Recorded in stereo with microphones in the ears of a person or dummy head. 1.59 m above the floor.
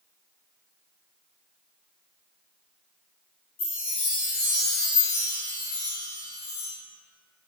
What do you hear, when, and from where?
3.6 s a chime: 45° left (ahead or behind), 1.4 m